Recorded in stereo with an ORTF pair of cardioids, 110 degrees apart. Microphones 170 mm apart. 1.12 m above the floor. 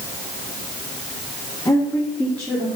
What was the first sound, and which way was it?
A woman speaking, 15° left.